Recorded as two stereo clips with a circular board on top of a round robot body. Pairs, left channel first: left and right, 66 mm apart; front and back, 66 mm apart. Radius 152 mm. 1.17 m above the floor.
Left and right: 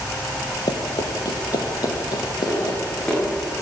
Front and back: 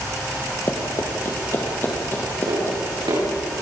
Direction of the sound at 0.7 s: 60° left.